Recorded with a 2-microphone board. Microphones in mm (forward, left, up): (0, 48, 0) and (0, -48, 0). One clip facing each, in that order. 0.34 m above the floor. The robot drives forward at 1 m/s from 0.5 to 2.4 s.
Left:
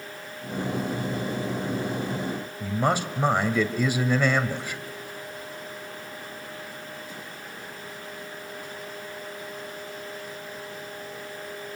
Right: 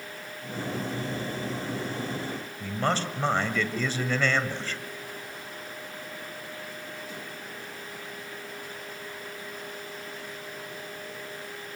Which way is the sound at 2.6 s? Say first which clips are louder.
Left 3 dB; 15° left (ahead or behind).